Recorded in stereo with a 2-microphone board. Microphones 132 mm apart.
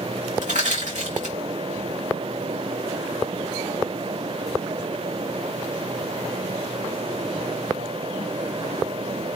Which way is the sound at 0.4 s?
75° right (ahead or behind).